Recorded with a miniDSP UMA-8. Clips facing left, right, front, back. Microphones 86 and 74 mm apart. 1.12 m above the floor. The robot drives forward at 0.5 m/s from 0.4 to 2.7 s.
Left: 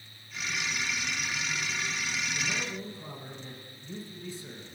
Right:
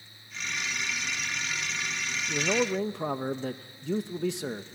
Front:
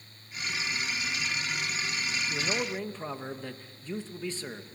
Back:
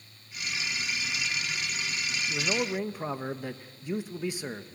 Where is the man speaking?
85° right, 0.8 m; by 4.7 s 105° right, 0.8 m.